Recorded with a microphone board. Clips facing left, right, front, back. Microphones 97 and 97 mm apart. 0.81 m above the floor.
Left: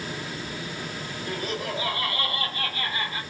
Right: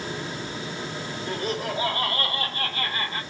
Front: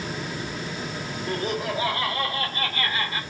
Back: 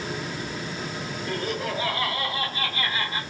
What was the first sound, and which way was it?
Laughter, 55° right.